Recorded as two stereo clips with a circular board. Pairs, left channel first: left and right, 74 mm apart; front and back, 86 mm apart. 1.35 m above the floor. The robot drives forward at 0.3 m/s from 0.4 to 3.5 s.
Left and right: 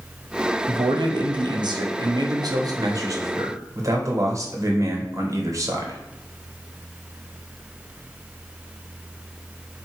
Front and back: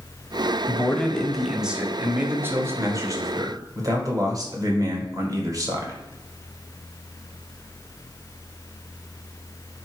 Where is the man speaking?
75° right, 0.7 m; by 6.0 s 135° right, 0.9 m.